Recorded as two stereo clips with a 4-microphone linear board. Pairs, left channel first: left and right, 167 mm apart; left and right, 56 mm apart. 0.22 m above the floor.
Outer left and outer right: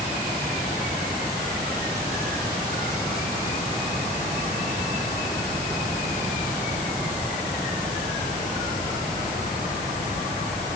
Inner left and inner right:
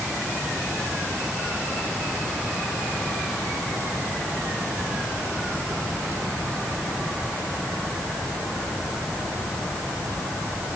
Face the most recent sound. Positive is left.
No sound to turn to.